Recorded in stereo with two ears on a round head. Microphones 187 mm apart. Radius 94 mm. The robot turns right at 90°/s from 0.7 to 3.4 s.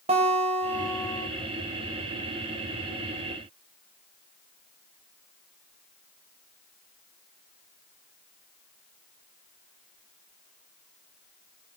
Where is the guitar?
30° right, 3.5 m; by 1.3 s 20° left, 3.5 m.